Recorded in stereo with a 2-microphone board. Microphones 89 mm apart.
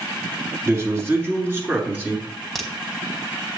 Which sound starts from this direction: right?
A man speaking, at 0.7 s.